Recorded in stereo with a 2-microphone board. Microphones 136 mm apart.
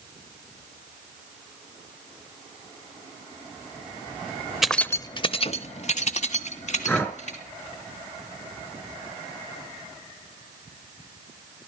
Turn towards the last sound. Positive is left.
turn(degrees=15)  # may be behind; listen again after turning